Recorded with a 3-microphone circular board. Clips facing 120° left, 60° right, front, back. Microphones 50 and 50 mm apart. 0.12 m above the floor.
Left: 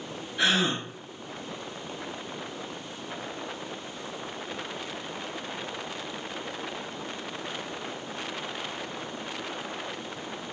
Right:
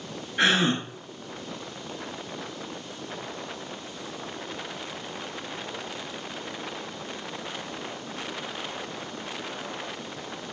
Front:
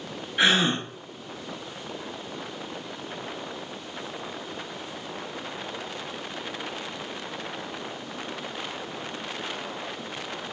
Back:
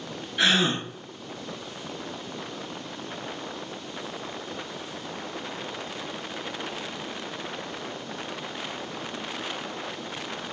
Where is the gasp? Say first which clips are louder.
Right 3 dB, front 1 dB; 60° right, 0.6 m.